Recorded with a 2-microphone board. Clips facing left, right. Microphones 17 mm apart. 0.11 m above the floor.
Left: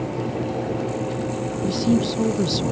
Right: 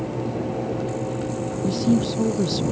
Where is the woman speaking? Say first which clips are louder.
Even; 10° left (ahead or behind).